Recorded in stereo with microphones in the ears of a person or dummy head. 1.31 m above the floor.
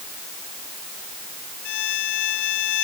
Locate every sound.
1.6 s a violin: 60° left (ahead or behind)